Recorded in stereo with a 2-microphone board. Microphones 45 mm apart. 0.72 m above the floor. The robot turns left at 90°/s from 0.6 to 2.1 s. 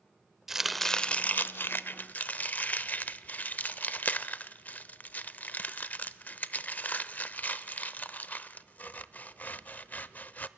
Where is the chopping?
10° right (ahead or behind), 0.5 m; by 10.5 s 40° left (ahead or behind), 0.5 m.